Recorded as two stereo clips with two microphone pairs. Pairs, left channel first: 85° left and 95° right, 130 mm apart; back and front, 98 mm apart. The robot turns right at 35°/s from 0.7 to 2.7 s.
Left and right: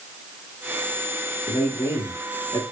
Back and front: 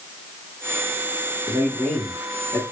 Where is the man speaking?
90° left, 1.3 m; by 2.6 s 130° left, 1.3 m.